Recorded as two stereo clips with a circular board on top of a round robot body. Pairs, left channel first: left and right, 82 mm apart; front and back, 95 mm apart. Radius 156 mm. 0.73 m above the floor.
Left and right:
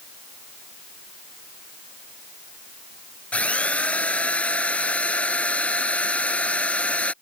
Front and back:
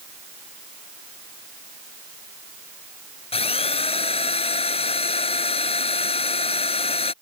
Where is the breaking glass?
I don't hear breaking glass.